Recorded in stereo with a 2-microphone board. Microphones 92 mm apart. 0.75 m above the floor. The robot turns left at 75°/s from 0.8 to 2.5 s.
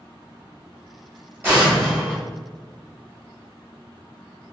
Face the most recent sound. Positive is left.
turn(degrees=125)